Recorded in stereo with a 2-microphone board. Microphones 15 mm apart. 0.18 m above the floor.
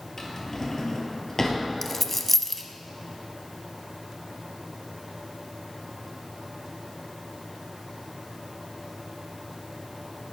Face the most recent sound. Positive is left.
turn(degrees=20)  # may be behind; listen again after turning